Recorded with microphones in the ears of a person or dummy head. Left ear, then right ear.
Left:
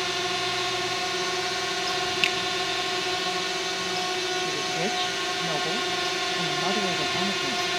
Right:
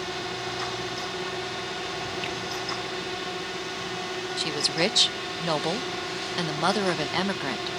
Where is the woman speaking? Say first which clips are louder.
Right 1 dB; 65° right (ahead or behind).